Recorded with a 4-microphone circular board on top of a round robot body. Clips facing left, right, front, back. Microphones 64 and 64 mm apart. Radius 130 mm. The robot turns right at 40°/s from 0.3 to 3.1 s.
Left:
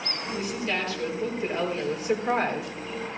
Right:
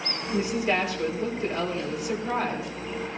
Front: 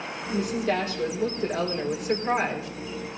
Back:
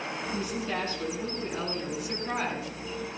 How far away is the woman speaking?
About 4 m.